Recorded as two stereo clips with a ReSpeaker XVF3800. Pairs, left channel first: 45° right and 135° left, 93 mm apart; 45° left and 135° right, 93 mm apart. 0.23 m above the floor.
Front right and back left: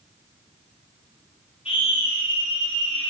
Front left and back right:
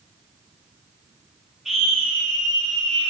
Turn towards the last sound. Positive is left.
turn(degrees=-40)